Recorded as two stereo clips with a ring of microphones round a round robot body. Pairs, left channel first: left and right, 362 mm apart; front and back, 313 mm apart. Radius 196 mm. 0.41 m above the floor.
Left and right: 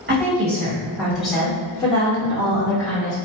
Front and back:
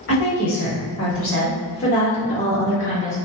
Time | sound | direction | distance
0.1 | a woman speaking | 35° right | 1.7 m